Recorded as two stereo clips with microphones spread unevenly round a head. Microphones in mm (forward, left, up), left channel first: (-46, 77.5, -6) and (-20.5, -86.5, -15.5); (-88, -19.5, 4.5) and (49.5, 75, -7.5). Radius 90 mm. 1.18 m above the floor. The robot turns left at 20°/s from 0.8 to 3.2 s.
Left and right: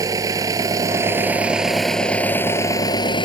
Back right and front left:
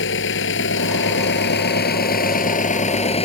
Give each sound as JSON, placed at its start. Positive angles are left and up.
{"t": 0.0, "sound": "an engine running", "azimuth_deg": -150}